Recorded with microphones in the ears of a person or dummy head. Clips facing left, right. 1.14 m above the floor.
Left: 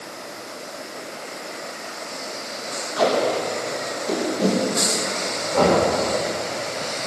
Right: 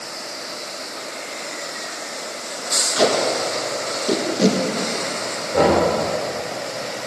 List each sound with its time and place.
3.0 s tape being pulled: 30° right (ahead or behind), 1.4 m
5.5 s knocking: 30° right (ahead or behind), 3.5 m